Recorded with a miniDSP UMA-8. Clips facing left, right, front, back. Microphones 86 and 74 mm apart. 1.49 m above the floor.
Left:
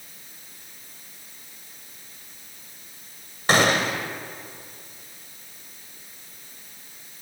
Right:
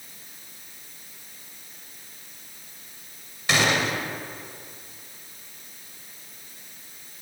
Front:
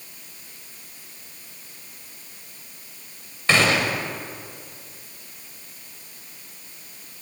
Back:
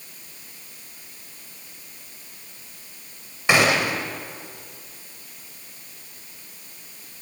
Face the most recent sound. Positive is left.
turn(degrees=110)